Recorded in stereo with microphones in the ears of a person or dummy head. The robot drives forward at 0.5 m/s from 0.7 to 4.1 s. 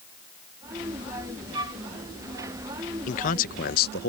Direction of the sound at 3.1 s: 35° left (ahead or behind).